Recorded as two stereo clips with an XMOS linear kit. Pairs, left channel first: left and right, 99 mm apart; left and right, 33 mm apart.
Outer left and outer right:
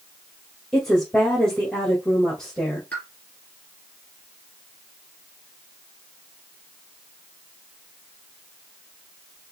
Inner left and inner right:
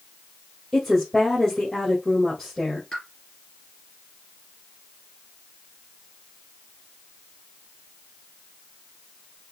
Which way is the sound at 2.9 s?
15° left (ahead or behind).